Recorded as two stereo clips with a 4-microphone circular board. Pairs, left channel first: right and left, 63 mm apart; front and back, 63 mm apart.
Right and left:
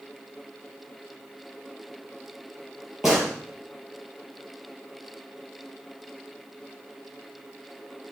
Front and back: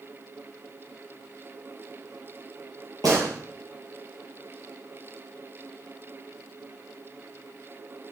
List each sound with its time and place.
3.0 s a gunshot: 175° left, 6 m